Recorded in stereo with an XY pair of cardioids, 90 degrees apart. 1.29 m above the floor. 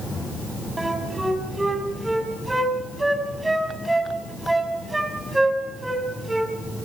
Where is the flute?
15° right, 4.5 m.